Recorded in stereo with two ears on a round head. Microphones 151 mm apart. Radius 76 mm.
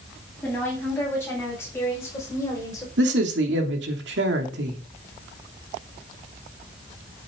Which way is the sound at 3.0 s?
75° right (ahead or behind).